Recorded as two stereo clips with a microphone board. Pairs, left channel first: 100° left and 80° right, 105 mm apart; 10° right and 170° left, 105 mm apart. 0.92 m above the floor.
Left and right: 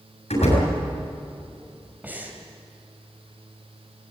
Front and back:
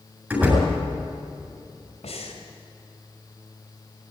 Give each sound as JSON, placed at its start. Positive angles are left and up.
{"t": 0.3, "sound": "a door slam", "azimuth_deg": 95, "distance_m": 7.5}
{"t": 2.0, "sound": "breathing", "azimuth_deg": -5, "distance_m": 3.0}